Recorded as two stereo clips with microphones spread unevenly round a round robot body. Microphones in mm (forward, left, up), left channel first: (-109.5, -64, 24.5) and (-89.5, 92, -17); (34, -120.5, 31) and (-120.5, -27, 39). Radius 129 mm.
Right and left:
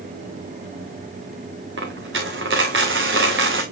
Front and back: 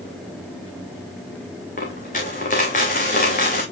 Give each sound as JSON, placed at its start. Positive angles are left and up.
{"t": 1.8, "sound": "a dropped coin", "azimuth_deg": 30, "distance_m": 2.5}